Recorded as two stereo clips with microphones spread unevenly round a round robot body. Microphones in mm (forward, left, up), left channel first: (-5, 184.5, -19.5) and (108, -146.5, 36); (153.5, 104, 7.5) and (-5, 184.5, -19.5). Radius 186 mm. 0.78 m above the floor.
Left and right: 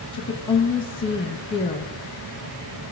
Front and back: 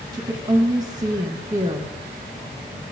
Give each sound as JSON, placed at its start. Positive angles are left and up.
{"t": 0.1, "sound": "a woman speaking", "azimuth_deg": 150, "distance_m": 1.1}